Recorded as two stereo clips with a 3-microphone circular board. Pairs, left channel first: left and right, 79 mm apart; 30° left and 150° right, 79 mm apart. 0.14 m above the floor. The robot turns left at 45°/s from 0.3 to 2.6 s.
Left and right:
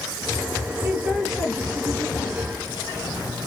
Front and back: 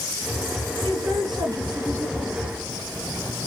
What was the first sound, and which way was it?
A man speaking, 155° right.